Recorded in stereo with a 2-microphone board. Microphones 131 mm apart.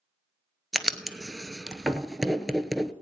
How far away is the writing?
About 0.8 m.